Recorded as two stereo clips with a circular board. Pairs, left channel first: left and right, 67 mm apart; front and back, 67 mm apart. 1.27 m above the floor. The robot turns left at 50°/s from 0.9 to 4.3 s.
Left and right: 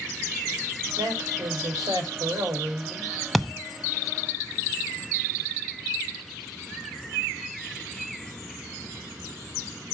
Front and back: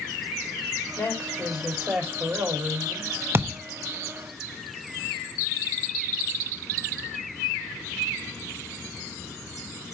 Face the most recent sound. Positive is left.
turn(degrees=130)